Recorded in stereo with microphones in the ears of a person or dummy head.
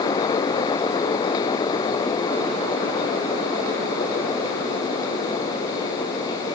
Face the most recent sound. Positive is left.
No sound to turn to.